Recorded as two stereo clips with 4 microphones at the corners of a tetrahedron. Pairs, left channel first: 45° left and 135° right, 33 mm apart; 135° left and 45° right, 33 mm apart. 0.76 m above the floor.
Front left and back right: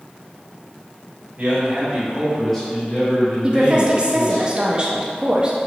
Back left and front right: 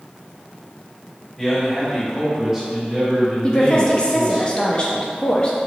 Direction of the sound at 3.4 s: 175° left.